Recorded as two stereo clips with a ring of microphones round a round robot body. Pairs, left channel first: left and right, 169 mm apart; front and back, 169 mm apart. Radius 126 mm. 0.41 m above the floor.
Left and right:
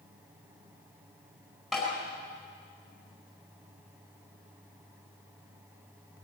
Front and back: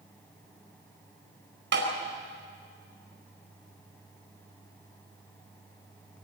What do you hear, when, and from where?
1.7 s tapping: straight behind, 4.5 m